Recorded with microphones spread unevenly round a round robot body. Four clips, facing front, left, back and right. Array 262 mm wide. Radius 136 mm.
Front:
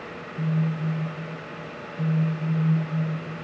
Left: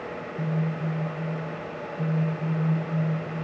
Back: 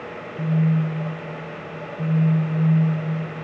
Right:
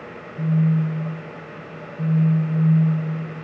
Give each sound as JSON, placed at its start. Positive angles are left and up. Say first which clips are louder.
{"t": 0.4, "sound": "a phone buzzing", "louder": "right 9 dB, back 5 dB", "azimuth_deg": -50, "distance_m": 8.0}